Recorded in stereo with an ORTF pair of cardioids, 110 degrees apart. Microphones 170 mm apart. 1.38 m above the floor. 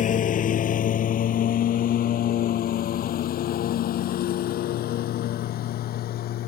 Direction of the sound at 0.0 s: 55° left.